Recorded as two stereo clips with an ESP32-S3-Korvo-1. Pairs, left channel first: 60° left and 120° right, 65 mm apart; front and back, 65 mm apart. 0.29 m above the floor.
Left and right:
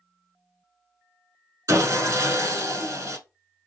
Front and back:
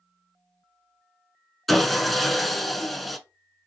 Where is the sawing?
85° right, 0.6 m.